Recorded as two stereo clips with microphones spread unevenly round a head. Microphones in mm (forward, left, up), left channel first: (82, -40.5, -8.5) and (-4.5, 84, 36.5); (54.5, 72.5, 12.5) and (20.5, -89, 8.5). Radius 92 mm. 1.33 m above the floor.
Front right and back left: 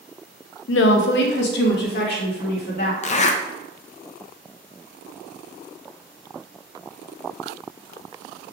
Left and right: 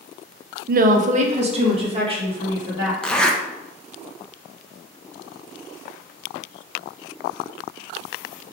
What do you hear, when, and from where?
0.7 s a woman speaking: 70° right, 0.5 m; by 2.9 s 40° right, 1.9 m
3.0 s a zipper: 5° right, 0.6 m